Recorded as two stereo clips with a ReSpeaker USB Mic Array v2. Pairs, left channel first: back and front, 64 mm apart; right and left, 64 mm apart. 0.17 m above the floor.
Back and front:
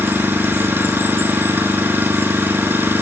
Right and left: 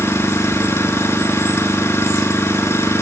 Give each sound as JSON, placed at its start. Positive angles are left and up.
{"t": 0.0, "sound": "an engine running", "azimuth_deg": -50, "distance_m": 2.5}